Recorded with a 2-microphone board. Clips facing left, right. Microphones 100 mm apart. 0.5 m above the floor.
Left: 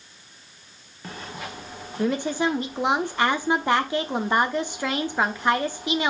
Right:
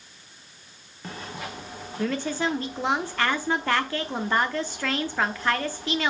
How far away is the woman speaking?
About 0.7 m.